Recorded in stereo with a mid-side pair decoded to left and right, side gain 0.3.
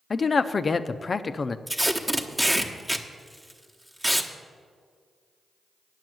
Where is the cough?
No cough in this recording.